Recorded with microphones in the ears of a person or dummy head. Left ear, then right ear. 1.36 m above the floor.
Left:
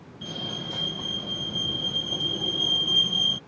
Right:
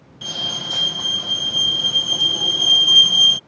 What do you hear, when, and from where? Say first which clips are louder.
0.2 s a fire alarm: right 9 dB; 50° right (ahead or behind)